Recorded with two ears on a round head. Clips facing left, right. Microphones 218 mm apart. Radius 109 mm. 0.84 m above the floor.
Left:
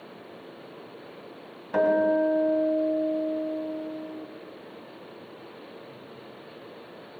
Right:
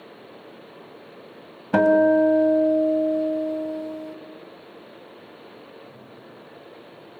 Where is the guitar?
75° right (ahead or behind), 2.0 m.